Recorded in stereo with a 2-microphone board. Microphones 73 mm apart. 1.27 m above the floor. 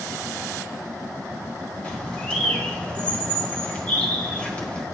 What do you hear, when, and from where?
1.8 s a bird: 20° left (ahead or behind), 1.4 m